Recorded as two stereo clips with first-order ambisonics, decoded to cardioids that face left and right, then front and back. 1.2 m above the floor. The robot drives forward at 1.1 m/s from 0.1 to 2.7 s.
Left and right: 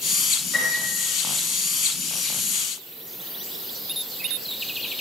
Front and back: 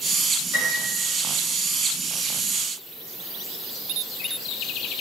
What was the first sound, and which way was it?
A piano, straight ahead.